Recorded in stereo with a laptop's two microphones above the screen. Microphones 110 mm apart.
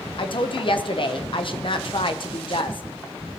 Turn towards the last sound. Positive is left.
turn(degrees=50)  # may be behind; listen again after turning